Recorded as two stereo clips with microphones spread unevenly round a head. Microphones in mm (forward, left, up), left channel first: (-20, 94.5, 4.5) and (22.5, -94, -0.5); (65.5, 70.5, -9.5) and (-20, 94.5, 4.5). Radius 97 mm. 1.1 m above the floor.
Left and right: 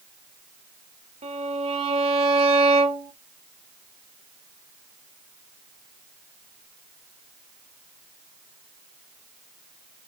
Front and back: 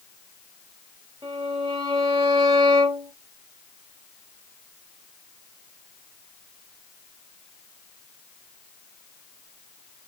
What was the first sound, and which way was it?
A violin, 140° right.